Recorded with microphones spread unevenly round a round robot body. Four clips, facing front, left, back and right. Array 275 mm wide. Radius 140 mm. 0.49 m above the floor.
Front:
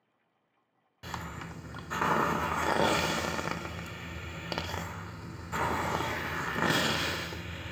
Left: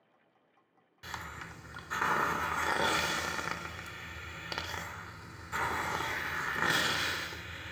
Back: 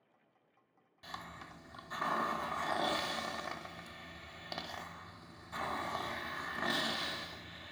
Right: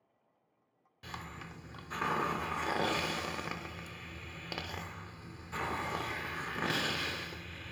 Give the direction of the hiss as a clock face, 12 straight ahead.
12 o'clock.